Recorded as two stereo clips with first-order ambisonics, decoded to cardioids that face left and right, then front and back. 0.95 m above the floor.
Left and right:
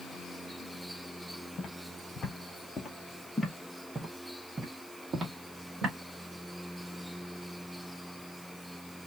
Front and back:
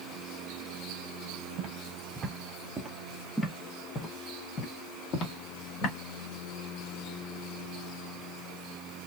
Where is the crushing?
I don't hear crushing.